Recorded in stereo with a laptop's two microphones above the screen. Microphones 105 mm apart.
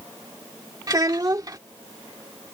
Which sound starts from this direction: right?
A child speaking, at 0.9 s.